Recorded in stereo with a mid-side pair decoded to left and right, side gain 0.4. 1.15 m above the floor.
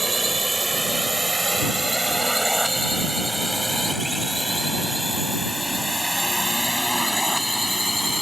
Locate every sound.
0.0 s a drone: 20° right; by 8.2 s 5° left